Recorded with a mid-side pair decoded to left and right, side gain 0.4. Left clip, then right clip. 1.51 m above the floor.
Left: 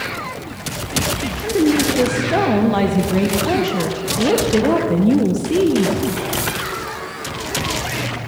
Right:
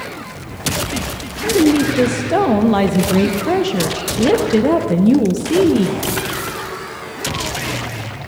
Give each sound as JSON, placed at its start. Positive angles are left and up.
{"t": 1.4, "sound": "a woman speaking", "azimuth_deg": -25, "distance_m": 1.1}